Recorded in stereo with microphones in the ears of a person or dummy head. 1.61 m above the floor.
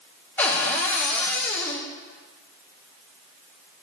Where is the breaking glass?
No breaking glass in this recording.